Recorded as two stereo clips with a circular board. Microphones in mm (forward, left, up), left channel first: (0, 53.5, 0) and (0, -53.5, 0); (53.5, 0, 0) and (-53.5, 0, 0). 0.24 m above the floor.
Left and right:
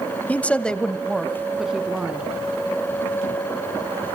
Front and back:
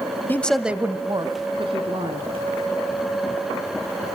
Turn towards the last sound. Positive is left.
turn(degrees=-170)